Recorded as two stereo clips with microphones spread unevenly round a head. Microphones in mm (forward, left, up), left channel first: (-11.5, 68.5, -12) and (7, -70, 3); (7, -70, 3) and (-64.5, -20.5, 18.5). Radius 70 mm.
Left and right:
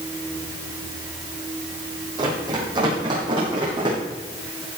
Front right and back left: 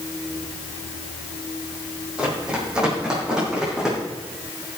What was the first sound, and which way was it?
Running footsteps, 140° right.